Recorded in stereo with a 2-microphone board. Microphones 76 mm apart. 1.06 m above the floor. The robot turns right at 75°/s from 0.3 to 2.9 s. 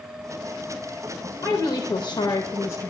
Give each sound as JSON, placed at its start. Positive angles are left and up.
{"t": 1.4, "sound": "a woman speaking", "azimuth_deg": 45, "distance_m": 0.7}